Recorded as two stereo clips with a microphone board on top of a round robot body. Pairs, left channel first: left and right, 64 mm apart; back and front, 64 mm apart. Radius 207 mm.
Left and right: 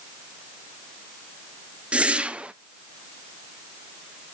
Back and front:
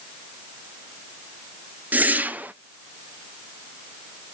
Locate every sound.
1.9 s a whoosh: 35° right, 1.1 m